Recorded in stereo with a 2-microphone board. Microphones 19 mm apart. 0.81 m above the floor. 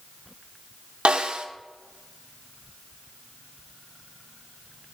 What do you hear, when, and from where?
1.1 s a snare drum: 80° right, 1.1 m